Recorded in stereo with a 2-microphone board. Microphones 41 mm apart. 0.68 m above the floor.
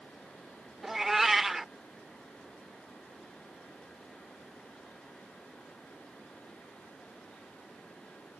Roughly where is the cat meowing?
Centre.